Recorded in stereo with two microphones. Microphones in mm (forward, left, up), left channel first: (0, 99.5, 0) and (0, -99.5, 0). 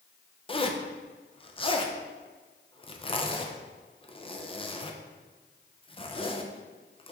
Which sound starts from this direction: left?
A zipper, at 0.5 s.